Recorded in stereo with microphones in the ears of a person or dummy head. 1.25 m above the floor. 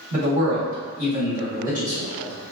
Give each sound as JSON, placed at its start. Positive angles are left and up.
{"t": 0.1, "sound": "a man speaking", "side_deg": -35, "distance_m": 1.2}